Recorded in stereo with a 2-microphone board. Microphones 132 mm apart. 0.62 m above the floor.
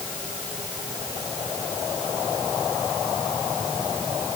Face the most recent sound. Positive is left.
No sound to turn to.